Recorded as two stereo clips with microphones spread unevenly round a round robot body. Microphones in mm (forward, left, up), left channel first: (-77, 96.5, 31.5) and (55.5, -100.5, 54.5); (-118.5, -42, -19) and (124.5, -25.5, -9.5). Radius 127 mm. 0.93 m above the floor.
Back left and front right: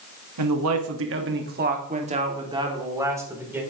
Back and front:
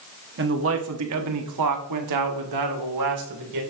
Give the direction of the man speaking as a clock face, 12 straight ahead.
1 o'clock.